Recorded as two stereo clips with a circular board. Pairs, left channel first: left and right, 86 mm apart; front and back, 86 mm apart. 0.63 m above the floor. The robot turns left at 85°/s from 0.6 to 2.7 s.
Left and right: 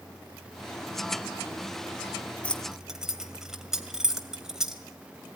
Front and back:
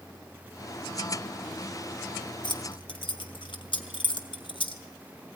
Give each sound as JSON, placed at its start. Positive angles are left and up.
{"t": 2.4, "sound": "keys jangling", "azimuth_deg": 15, "distance_m": 2.0}